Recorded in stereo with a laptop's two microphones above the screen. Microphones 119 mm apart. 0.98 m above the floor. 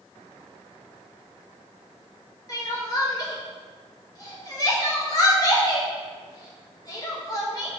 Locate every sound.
2.5 s crying: 30° left (ahead or behind), 1.0 m